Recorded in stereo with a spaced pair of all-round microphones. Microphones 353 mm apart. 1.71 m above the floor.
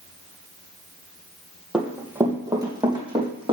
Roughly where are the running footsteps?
Centre.